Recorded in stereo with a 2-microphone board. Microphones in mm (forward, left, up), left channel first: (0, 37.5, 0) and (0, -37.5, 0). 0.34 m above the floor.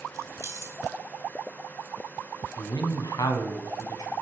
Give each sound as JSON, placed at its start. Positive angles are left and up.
{"t": 0.1, "sound": "keys jangling", "side_deg": -45, "distance_m": 1.7}
{"t": 2.6, "sound": "a man speaking", "side_deg": 65, "distance_m": 2.0}